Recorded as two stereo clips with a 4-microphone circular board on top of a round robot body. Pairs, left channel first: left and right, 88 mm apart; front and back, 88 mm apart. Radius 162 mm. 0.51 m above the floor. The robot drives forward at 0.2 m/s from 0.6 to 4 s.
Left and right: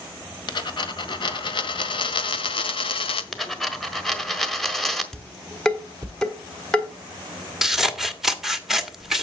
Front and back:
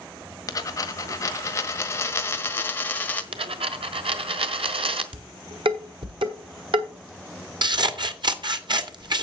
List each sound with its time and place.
0.5 s a dropped coin: 50° left, 1.5 m; by 3.2 s 70° left, 1.2 m
3.3 s a dropped coin: 175° left, 1.3 m
5.1 s dishes clattering: 170° left, 1.8 m
7.6 s scissors: 175° right, 1.6 m